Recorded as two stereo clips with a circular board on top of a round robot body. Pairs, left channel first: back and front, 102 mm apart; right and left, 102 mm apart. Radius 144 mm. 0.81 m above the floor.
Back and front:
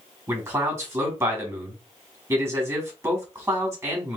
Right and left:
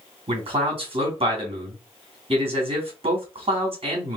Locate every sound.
0.3 s a man speaking: 65° left, 3 m